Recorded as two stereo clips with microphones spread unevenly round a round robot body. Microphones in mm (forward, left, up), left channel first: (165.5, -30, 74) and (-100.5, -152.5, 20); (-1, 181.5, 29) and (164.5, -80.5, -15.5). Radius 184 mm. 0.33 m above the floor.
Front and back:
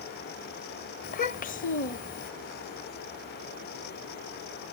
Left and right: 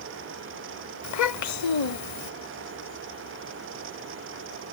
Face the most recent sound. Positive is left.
turn(degrees=95)